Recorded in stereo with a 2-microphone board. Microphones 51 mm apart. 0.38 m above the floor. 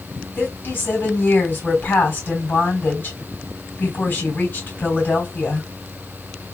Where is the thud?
No thud in this recording.